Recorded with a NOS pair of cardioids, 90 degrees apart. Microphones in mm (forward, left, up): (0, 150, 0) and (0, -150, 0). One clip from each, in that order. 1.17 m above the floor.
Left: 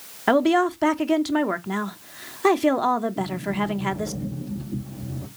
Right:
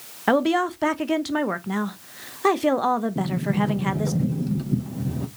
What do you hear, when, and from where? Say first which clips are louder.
0.3 s a woman speaking: left 2 dB; 5° left, 0.6 m
3.1 s a sliding door: right 1 dB; 60° right, 1.2 m